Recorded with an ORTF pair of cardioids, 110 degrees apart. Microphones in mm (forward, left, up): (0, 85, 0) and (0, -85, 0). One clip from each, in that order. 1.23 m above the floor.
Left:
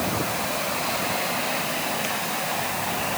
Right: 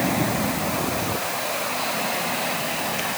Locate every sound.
Only background noise.